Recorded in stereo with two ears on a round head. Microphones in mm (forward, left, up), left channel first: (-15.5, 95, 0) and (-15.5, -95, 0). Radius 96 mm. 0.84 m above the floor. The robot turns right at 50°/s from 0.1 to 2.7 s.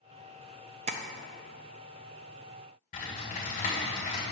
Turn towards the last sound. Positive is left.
turn(degrees=40)  # may be behind; listen again after turning